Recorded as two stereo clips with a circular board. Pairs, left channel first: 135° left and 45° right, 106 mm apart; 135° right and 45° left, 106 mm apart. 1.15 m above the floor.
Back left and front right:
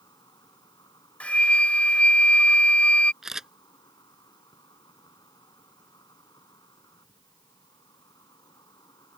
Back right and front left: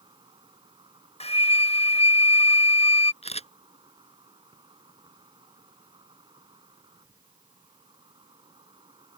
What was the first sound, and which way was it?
An insect, 85° left.